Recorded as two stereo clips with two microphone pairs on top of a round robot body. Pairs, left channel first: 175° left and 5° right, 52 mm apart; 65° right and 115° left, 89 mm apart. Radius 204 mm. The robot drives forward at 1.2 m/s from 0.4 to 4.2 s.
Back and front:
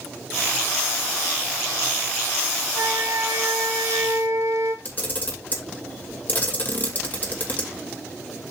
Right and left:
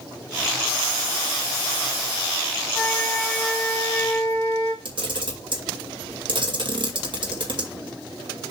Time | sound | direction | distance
2.7 | a flute | straight ahead | 4 m
4.8 | a camera shutter | 125° left | 2.5 m